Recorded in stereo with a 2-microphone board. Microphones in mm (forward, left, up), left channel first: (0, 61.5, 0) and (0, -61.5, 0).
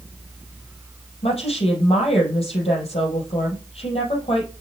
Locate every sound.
1.2 s a woman speaking: 55° left (ahead or behind), 4 m